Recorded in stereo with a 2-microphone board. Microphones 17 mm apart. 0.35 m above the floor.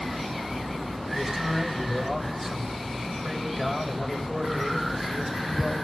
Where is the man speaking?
5° left (ahead or behind), 1.9 m.